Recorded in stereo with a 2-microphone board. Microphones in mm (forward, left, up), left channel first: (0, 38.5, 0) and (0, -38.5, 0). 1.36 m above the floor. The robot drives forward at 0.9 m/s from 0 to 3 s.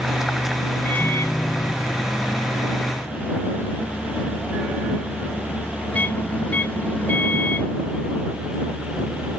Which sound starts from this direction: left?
A microwave, at 0.8 s.